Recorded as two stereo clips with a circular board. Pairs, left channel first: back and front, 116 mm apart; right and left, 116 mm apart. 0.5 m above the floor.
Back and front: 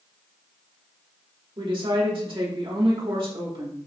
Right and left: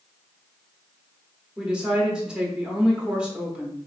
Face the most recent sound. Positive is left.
turn(degrees=10)